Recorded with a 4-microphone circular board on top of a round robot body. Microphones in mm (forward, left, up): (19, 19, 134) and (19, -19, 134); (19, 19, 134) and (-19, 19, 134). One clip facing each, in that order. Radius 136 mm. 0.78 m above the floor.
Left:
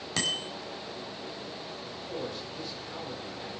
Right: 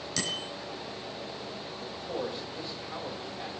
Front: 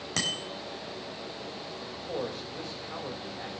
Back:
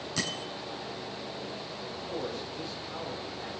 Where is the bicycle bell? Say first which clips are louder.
Left 3 dB, front 3 dB; 35° left, 4 m.